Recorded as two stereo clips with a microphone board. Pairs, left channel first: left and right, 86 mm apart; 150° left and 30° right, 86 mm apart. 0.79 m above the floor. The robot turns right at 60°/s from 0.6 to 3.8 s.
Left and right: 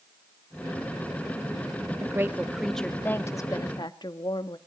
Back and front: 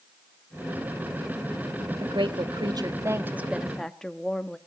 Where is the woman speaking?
40° right, 1.0 m; by 4.6 s 65° left, 1.0 m.